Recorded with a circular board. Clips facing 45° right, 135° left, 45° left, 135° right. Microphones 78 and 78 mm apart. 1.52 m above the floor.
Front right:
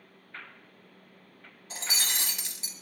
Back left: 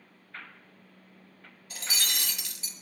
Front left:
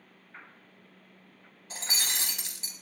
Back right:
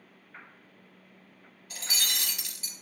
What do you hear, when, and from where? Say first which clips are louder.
1.7 s breaking glass: even, even; straight ahead, 0.8 m